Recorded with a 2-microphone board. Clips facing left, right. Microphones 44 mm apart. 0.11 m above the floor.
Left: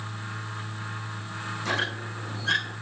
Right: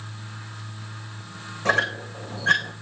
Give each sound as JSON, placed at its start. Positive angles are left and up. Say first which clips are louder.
{"t": 1.6, "sound": "a squeak", "louder": "right 7 dB", "side_deg": -50, "distance_m": 3.5}